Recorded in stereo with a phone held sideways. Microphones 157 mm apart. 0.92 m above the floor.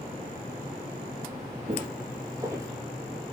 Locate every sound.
1.7 s footsteps: 45° right (ahead or behind), 1.3 m; by 2.7 s 15° right (ahead or behind), 1.4 m